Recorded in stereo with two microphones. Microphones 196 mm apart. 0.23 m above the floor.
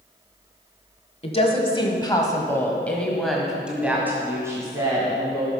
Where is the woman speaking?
30° left (ahead or behind), 1.5 m; by 5.5 s 20° right (ahead or behind), 2 m.